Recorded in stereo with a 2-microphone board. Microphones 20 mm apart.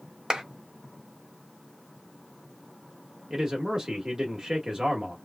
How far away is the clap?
About 1.0 m.